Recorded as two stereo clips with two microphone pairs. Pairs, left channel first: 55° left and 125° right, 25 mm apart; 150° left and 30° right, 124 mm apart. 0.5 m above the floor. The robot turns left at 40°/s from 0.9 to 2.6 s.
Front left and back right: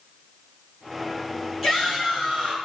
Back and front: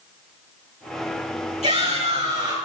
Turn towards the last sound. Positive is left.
turn(degrees=-90)